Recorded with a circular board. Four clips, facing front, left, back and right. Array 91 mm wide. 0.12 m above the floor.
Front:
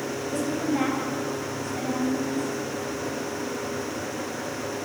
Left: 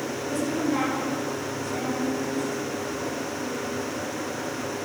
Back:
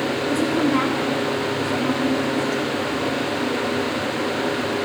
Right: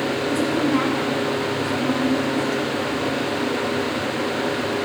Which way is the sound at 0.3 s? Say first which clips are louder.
Right 4 dB, back 6 dB; 150° right.